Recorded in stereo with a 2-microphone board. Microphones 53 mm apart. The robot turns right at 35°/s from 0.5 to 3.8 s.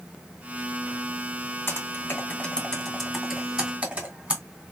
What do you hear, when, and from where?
1.7 s typing on a keyboard: 50° left (ahead or behind), 2.5 m; by 4.4 s 25° right (ahead or behind), 2.5 m